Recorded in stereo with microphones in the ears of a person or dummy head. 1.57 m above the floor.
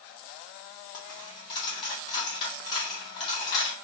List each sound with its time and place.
0.9 s a dropped coin: 25° left (ahead or behind), 1.5 m